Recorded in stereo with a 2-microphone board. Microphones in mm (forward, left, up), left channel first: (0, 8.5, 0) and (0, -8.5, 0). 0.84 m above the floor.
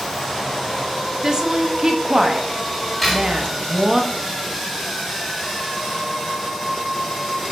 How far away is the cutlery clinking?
About 3.5 m.